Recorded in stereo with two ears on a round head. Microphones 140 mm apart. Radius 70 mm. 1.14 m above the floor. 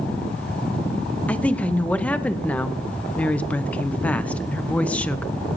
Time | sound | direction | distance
1.3 | a woman speaking | 10° left (ahead or behind) | 0.6 m